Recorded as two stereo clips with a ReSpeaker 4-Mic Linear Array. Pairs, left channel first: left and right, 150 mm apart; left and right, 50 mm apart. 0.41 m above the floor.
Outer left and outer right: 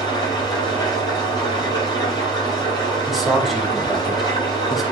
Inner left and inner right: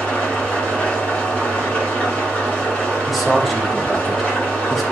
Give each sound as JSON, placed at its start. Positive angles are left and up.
{"t": 0.0, "sound": "an engine running", "side_deg": 30, "distance_m": 6.5}
{"t": 3.1, "sound": "a man speaking", "side_deg": 0, "distance_m": 2.5}